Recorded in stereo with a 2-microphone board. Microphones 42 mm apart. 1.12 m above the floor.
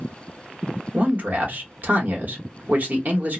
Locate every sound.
0.9 s a man speaking: 45° right (ahead or behind), 0.9 m